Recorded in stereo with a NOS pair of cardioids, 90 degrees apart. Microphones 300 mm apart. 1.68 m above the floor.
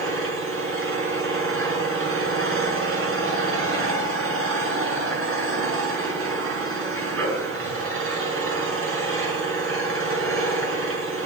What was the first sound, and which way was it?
An engine running, 45° right.